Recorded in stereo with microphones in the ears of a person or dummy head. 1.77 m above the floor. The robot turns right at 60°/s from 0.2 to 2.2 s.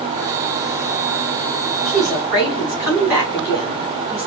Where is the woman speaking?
10° left (ahead or behind), 3.5 m; by 4.3 s 10° right (ahead or behind), 3.5 m.